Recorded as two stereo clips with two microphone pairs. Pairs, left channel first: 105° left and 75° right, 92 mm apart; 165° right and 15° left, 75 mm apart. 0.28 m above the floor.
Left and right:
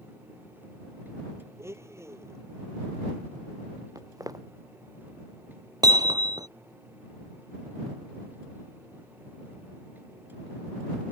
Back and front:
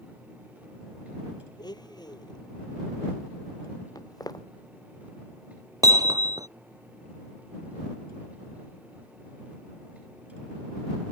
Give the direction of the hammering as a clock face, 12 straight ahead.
1 o'clock.